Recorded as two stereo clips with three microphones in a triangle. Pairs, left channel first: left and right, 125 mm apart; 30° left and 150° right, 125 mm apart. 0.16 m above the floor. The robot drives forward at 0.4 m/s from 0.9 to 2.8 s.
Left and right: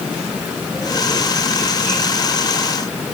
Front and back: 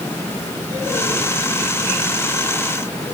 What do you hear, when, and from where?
Only background noise.